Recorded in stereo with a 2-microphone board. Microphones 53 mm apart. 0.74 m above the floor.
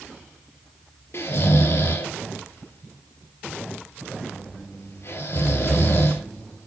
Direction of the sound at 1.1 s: 55° left (ahead or behind).